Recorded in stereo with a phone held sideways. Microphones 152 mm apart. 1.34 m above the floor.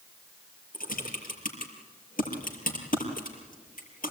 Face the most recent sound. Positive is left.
turn(degrees=65)  # may be behind; listen again after turning